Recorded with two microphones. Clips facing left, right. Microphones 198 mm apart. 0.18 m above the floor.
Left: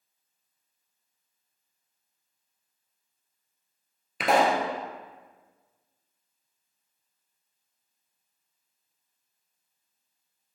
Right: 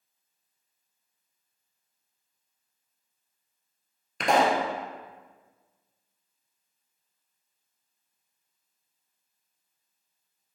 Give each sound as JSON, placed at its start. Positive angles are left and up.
{"t": 4.2, "sound": "a pop", "side_deg": 5, "distance_m": 0.8}